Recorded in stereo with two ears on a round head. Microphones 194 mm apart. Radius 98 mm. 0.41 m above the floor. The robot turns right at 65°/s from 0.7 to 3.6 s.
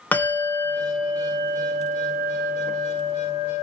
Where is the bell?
170° left, 0.7 m; by 3.6 s straight ahead, 0.7 m.